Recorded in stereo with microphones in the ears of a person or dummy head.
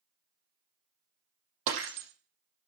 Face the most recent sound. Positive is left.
turn(degrees=-75)  # may be behind; listen again after turning